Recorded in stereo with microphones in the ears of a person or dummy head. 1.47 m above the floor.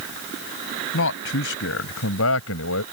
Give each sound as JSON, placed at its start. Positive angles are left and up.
{"t": 0.9, "sound": "a man speaking", "side_deg": 65}